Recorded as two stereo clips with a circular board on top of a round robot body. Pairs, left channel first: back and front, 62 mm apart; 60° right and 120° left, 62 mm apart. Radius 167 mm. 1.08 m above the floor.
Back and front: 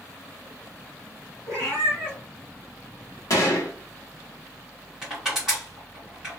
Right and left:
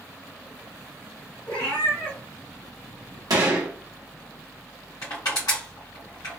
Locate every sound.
1.5 s a cat meowing: 60° right, 1.8 m
3.3 s a gunshot: 145° left, 0.8 m
5.0 s crushing: 85° right, 1.3 m